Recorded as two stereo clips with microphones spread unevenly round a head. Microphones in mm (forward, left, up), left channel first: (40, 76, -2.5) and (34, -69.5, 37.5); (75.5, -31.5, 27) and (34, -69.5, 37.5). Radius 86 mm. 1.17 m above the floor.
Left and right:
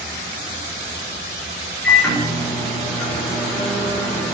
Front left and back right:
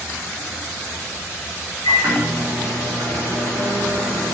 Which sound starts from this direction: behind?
A microwave, at 1.8 s.